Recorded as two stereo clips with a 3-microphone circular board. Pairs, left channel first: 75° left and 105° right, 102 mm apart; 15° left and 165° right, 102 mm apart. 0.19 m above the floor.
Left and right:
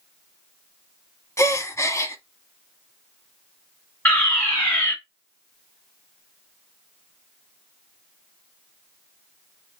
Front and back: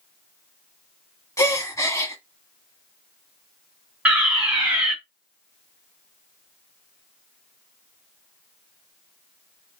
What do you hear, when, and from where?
1.4 s a gasp: 40° left, 1.3 m
4.0 s a fire alarm: 125° left, 2.5 m